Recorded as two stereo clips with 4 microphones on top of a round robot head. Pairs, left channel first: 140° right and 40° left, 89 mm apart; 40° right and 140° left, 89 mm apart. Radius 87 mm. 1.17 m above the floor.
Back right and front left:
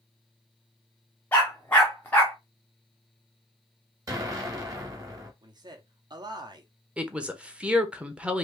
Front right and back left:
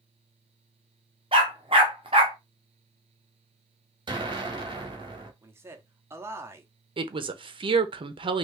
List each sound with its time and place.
1.3 s a dog barking: 155° left, 0.6 m
4.1 s an explosion: 100° left, 1.3 m
5.4 s a man speaking: 75° left, 1.0 m
7.0 s a woman speaking: 120° left, 0.7 m